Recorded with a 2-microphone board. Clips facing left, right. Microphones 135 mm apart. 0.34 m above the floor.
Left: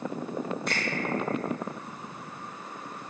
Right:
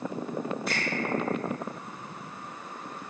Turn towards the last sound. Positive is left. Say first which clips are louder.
# even
turn(degrees=-5)  # may be behind; listen again after turning